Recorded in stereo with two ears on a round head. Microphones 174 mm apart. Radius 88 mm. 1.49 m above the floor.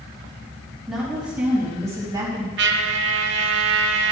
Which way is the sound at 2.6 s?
60° right (ahead or behind).